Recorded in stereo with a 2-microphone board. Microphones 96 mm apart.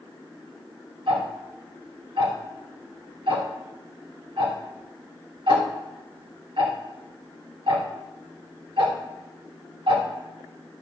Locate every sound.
1.1 s ticking: 70° right (ahead or behind), 3 m